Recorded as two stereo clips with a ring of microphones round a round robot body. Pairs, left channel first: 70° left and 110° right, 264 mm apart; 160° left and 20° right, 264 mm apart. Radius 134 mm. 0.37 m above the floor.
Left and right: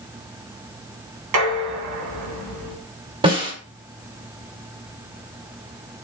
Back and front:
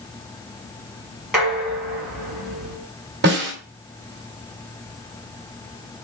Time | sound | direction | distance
1.3 | dishes clattering | 110° right | 2 m
3.2 | a snare drum | 50° right | 1.9 m